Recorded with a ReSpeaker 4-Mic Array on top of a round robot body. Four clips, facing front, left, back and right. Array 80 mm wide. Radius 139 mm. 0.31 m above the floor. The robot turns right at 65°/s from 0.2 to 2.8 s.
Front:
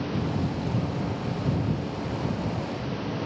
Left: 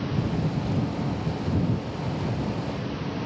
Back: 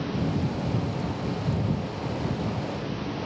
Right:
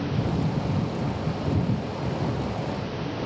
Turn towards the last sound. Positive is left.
No sound to turn to.